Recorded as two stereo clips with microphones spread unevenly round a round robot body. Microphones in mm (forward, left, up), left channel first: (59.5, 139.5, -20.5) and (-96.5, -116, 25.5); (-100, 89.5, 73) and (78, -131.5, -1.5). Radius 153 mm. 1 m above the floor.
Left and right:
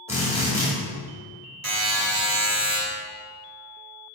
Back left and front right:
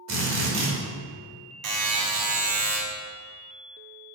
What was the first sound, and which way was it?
A drill, 35° right.